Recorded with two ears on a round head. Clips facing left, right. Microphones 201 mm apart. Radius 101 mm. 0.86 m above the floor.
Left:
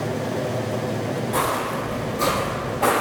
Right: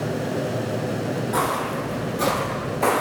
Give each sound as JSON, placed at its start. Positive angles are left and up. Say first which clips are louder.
{"t": 1.3, "sound": "footsteps", "louder": "even", "side_deg": -10, "distance_m": 0.8}